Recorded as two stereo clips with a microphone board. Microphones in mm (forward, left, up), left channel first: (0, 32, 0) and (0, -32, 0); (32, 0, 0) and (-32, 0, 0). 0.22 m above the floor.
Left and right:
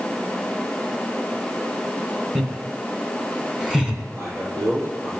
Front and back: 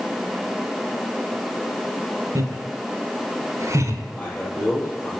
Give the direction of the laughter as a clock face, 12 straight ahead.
6 o'clock.